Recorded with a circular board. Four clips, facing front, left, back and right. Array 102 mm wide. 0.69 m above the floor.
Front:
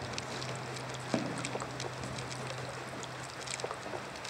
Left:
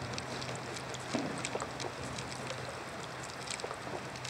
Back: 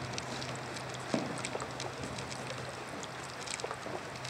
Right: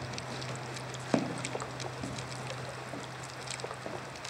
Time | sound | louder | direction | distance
1.1 | footsteps | right 5 dB, even | 90° right | 1.6 m